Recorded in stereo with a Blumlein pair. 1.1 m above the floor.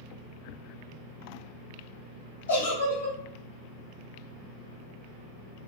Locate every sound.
2.5 s a giggle: 65° left, 2 m